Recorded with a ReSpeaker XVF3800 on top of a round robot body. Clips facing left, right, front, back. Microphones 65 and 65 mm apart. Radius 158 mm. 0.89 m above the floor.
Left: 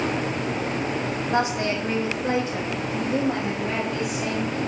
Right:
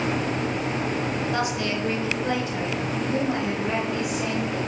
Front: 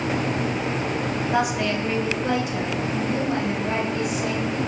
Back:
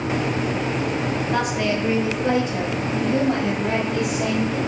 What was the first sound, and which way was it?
A woman speaking, 70° left.